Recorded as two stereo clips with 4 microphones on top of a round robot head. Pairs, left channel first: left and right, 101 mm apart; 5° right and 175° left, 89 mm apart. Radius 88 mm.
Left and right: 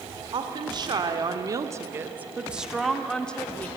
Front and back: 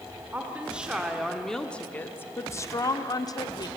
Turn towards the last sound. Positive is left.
turn(degrees=20)